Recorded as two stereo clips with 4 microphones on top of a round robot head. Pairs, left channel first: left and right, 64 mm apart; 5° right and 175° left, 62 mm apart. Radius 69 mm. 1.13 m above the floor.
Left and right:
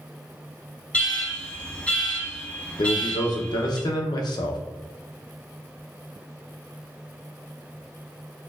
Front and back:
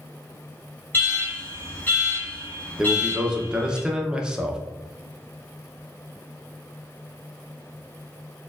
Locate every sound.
0.9 s an alarm: 30° left, 1.3 m
2.8 s a man speaking: 100° left, 0.6 m